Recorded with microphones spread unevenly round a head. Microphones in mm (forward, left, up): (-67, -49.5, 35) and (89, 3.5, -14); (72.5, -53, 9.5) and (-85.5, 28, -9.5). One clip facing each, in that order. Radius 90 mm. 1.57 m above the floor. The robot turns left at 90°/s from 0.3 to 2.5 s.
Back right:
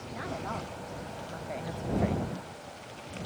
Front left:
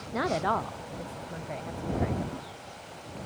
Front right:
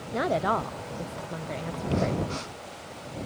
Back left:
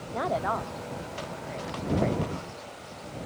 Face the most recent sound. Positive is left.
turn(degrees=-155)